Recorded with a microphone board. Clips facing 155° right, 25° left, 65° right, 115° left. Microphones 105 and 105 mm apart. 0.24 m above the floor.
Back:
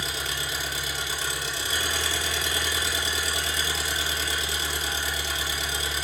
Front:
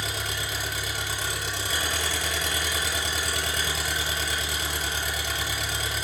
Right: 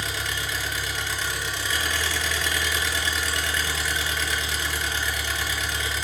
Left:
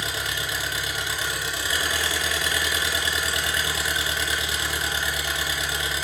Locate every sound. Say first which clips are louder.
0.0 s an engine running: even, even; 35° left, 0.9 m